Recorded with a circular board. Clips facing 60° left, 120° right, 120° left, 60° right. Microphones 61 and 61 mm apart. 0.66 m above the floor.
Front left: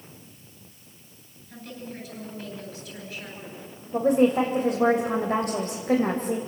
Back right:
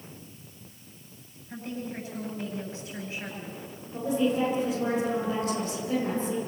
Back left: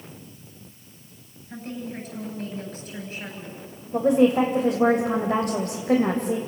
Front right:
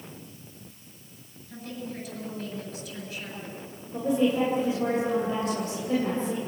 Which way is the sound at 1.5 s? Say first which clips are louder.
Back right 3 dB, back left 3 dB; 175° left.